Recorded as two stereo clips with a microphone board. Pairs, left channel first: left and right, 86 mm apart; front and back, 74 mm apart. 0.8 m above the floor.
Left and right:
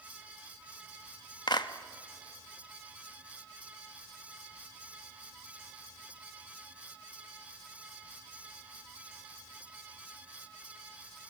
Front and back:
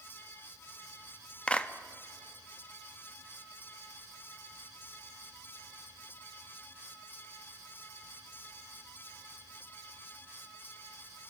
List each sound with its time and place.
1.5 s a clap: 70° left, 0.9 m